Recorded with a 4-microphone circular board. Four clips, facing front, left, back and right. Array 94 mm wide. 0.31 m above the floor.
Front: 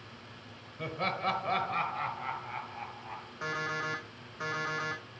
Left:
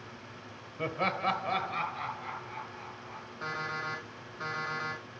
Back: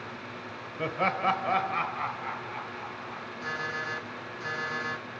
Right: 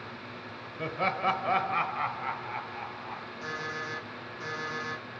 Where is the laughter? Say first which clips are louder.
Right 2 dB, back 6 dB; 170° left, 1.0 m; by 3.3 s 80° right, 1.8 m.